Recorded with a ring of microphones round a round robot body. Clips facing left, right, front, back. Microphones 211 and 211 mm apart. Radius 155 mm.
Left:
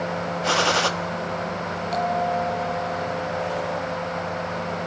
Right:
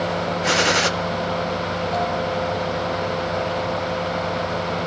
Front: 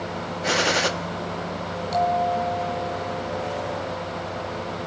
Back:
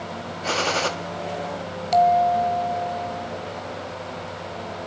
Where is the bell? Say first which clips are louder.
Left 1 dB, back 5 dB; 155° left, 2 m.